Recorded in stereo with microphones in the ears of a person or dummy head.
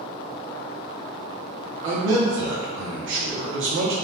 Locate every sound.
1.8 s a man speaking: 60° right (ahead or behind), 0.6 m